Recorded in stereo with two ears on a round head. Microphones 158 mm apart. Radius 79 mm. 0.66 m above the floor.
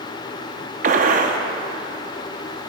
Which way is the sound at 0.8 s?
45° right (ahead or behind).